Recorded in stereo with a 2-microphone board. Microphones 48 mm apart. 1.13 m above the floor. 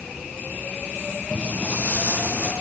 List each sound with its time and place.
1.3 s footsteps: 25° left (ahead or behind), 2 m; by 2.5 s 45° left (ahead or behind), 3.5 m